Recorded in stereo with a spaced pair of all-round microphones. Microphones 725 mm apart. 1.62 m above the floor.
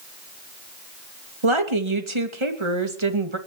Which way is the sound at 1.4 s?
40° right (ahead or behind).